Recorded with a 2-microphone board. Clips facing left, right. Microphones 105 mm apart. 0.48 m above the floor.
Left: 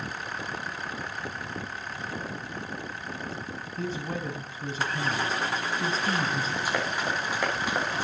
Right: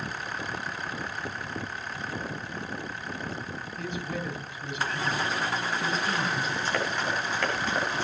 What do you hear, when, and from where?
3.8 s a man speaking: 35° left (ahead or behind), 2.5 m
6.7 s running footsteps: 10° left (ahead or behind), 8 m